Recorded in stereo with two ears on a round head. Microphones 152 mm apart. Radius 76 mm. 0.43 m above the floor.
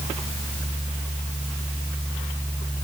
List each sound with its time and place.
Only background noise.